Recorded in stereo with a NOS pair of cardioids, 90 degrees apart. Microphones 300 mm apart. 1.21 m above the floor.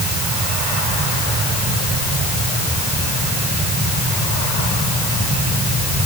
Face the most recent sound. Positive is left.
No sound to turn to.